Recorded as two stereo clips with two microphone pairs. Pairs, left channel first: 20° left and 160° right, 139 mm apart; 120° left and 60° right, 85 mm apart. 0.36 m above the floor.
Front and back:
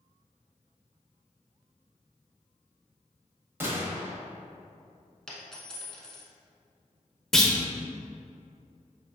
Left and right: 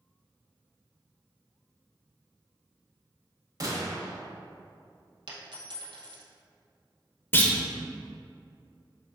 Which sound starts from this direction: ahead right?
A dropped coin, at 5.3 s.